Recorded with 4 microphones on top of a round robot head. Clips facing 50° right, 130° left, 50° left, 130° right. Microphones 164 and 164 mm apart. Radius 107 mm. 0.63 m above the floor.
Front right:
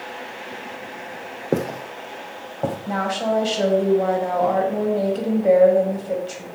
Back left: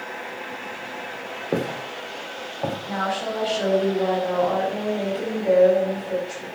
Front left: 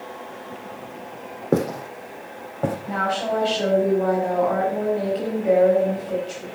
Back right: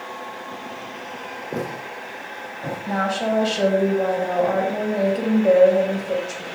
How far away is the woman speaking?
About 4.5 m.